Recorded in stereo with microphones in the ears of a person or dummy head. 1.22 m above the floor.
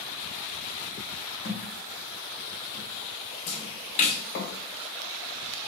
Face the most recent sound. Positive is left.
turn(degrees=40)  # may be behind; listen again after turning